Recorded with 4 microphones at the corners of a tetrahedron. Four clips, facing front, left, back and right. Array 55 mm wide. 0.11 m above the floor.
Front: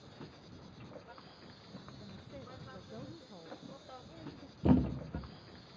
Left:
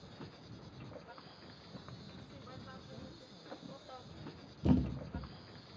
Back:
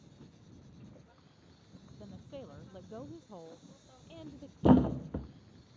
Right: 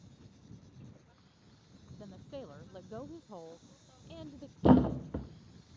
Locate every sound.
0.0 s an insect: 45° left
2.0 s a woman speaking: 115° right
4.6 s a thud: 125° right